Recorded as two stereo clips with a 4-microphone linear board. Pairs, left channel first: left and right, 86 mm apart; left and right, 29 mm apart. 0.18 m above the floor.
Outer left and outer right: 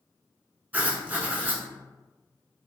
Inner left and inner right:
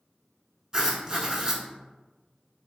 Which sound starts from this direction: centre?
Writing, at 0.7 s.